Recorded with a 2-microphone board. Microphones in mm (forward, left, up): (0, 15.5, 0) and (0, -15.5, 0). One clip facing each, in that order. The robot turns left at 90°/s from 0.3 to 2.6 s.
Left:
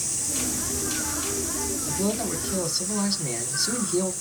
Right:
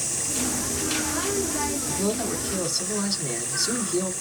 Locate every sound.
1.9 s a man speaking: 5° right (ahead or behind), 1.2 m; by 4.1 s 15° left (ahead or behind), 1.2 m